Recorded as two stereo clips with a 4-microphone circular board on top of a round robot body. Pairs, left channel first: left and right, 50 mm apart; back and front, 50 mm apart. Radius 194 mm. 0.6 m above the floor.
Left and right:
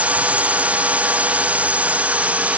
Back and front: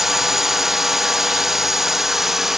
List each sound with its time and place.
0.0 s a drone: 75° right